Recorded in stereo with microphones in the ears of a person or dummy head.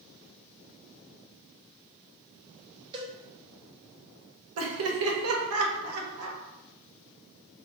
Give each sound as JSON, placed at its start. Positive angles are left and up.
{"t": 2.9, "sound": "a cowbell", "side_deg": -25, "distance_m": 0.7}
{"t": 4.6, "sound": "laughter", "side_deg": -75, "distance_m": 1.2}